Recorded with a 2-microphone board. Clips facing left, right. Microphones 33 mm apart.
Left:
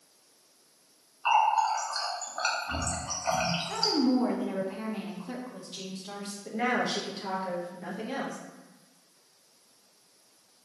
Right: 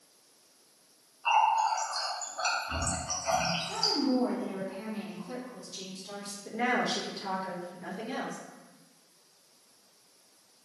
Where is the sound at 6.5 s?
5° left (ahead or behind), 1.0 m.